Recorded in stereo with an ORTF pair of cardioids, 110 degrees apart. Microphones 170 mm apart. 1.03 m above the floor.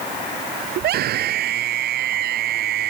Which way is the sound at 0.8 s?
70° right.